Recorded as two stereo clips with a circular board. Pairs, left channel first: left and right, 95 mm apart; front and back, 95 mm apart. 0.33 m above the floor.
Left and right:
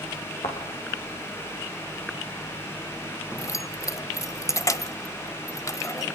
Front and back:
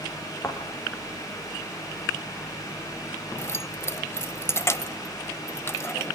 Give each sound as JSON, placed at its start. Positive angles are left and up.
{"t": 0.4, "sound": "a thud", "azimuth_deg": 75, "distance_m": 5.5}
{"t": 3.4, "sound": "keys jangling", "azimuth_deg": 50, "distance_m": 1.0}